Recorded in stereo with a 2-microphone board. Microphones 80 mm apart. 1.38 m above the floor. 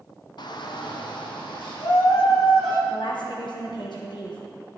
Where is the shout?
65° left (ahead or behind), 0.7 m; by 2.8 s 75° left (ahead or behind), 1.9 m.